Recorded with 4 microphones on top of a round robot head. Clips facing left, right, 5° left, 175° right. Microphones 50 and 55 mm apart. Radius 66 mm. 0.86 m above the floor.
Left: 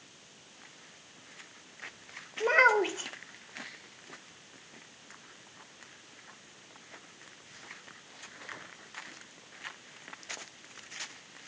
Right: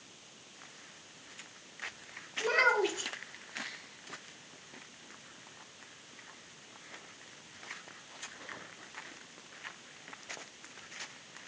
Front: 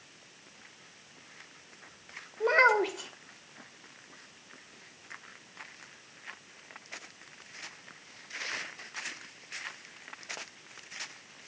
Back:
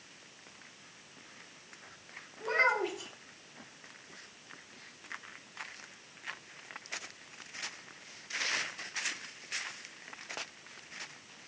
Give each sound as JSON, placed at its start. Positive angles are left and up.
{"t": 2.4, "sound": "a child speaking", "azimuth_deg": 30, "distance_m": 2.0}